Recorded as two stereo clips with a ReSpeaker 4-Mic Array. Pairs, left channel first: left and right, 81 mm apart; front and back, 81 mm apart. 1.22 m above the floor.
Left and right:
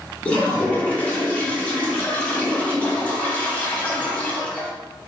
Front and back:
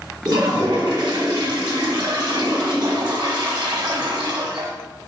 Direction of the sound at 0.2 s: 160° left.